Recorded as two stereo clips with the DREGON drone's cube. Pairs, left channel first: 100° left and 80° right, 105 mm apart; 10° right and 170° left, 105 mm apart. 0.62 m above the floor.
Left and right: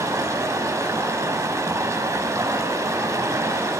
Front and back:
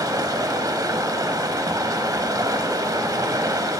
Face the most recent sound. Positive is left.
turn(degrees=-140)